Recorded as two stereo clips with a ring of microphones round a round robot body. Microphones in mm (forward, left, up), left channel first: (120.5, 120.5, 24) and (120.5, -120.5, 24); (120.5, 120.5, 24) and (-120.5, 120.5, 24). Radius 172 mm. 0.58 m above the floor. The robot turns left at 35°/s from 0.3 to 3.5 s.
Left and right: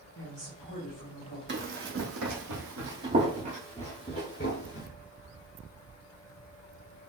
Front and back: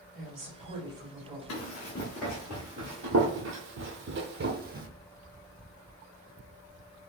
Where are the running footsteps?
50° right, 1.4 m; by 4.9 s 130° left, 1.0 m.